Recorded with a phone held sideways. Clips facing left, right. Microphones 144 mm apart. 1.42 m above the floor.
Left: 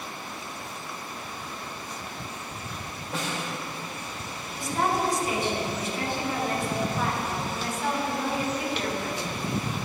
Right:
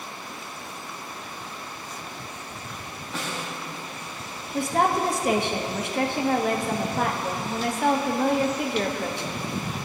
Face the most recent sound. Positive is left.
turn(degrees=-65)  # may be behind; listen again after turning